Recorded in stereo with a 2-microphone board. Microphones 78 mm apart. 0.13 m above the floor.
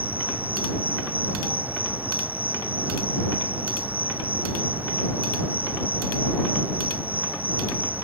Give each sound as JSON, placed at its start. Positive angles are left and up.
{"t": 0.0, "sound": "an insect", "side_deg": -20}